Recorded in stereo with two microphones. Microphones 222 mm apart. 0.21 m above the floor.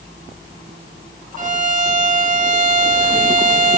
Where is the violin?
35° right (ahead or behind), 0.5 m.